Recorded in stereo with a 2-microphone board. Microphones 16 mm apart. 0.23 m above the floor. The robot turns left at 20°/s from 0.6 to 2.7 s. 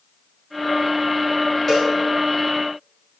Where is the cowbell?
15° left (ahead or behind), 4.5 m; by 1.9 s 10° left (ahead or behind), 4.5 m.